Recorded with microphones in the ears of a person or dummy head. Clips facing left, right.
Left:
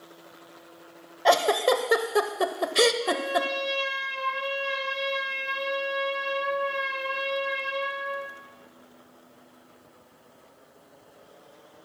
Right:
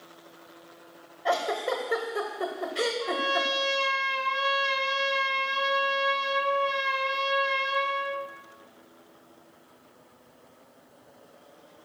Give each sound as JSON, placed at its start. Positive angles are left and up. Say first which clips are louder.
{"t": 1.2, "sound": "a giggle", "louder": "left 6 dB", "side_deg": 80, "distance_m": 1.1}
{"t": 3.0, "sound": "a trumpet", "louder": "left 3 dB", "side_deg": -65, "distance_m": 1.9}